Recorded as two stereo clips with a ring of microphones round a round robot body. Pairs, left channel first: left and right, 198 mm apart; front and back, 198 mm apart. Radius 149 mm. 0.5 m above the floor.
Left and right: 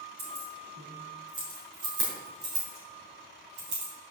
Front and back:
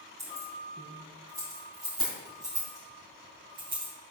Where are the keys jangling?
100° right, 4 m; by 3.9 s 130° right, 2.5 m.